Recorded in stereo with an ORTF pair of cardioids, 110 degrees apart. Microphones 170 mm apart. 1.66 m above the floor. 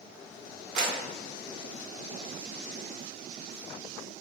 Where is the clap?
65° right, 1.5 m.